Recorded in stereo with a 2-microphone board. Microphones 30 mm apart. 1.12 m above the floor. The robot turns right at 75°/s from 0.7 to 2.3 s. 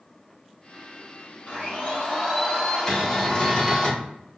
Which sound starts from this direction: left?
A blender, at 1.5 s.